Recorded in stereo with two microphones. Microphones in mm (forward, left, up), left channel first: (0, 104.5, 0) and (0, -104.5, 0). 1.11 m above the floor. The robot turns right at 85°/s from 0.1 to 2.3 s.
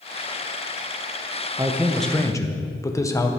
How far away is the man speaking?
About 0.6 m.